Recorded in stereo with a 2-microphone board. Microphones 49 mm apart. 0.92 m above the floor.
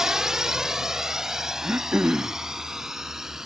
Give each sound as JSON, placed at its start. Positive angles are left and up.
{"t": 0.0, "sound": "a drone", "side_deg": -10}
{"t": 1.6, "sound": "throat clearing", "side_deg": -35}